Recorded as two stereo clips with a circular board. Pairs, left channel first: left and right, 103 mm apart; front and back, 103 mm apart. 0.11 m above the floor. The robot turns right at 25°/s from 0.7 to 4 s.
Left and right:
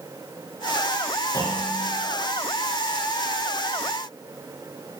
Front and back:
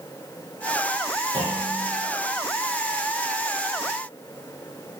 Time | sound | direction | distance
1.3 | a clunk | 145° left | 4 m